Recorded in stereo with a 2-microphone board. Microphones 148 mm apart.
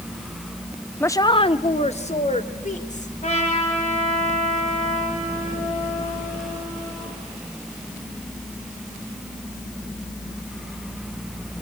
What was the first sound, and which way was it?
A woman speaking, 10° left (ahead or behind).